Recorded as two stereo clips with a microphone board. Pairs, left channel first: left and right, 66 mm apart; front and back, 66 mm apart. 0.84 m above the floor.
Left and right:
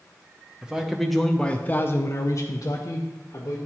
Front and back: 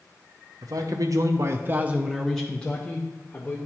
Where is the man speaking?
170° right, 0.9 m; by 3.6 s 60° left, 1.3 m.